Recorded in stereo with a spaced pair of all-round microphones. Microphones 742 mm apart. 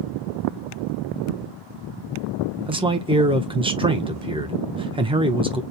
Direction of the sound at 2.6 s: 10° right (ahead or behind).